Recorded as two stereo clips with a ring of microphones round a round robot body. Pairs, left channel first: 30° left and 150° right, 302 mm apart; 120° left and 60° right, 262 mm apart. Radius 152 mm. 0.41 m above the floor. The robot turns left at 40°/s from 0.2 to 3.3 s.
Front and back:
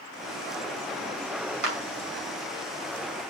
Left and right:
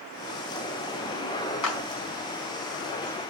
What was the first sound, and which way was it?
A clap, 155° left.